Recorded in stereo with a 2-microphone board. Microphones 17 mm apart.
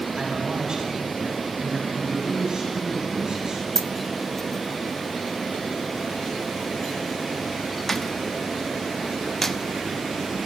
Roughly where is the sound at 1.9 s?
Right.